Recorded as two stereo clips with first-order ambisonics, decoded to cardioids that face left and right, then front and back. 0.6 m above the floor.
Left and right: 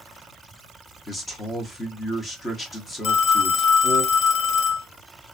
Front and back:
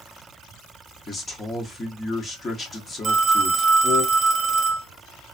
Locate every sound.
1.1 s a man speaking: 35° left, 0.6 m
3.0 s a phone ringing: 120° left, 0.7 m